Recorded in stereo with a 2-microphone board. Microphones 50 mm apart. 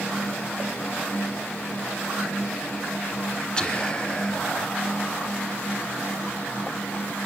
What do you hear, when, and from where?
3.6 s whispering: 20° left (ahead or behind), 2 m